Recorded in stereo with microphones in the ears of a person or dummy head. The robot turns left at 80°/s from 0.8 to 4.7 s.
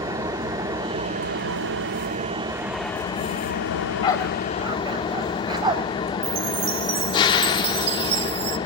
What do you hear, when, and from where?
0.0 s an engine running: 20° right, 1.2 m; by 8.7 s 30° left, 1.2 m
3.7 s a dog barking: 50° left (ahead or behind), 2 m; by 5.8 s 25° right (ahead or behind), 2 m
6.2 s a chime: 30° right (ahead or behind), 0.8 m